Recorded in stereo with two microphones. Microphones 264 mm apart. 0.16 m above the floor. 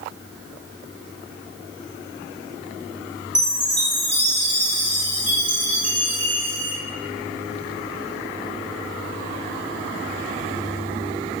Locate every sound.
3.4 s a chime: 65° right (ahead or behind), 1.5 m